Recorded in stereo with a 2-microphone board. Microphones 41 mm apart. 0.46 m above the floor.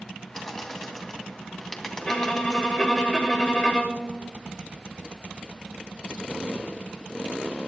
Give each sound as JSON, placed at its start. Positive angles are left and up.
{"t": 0.3, "sound": "a bird", "side_deg": 10, "distance_m": 1.9}
{"t": 2.0, "sound": "a violin", "side_deg": 20, "distance_m": 2.0}